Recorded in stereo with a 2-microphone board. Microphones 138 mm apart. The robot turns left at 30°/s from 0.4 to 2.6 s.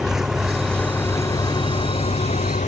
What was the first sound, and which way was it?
An engine running, straight behind.